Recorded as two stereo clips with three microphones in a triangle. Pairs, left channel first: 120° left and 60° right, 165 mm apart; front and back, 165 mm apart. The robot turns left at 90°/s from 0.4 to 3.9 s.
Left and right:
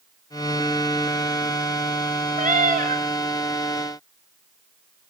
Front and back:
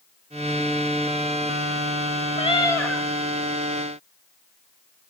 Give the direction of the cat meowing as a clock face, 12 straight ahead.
1 o'clock.